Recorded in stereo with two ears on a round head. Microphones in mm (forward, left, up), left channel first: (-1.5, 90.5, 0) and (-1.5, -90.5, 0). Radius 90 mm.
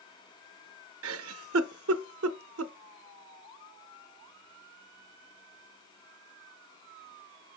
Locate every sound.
1.0 s a giggle: 80° right, 0.6 m